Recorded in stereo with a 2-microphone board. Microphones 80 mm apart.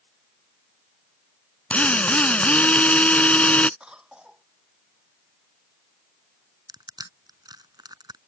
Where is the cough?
10° right (ahead or behind).